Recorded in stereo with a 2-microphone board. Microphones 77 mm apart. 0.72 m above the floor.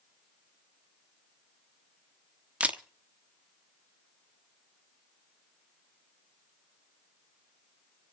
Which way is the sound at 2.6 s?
20° right (ahead or behind).